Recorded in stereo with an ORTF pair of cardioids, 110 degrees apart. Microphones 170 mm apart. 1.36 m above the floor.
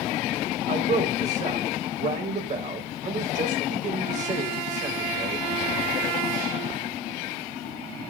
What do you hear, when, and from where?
0.7 s a man speaking: 50° right, 5 m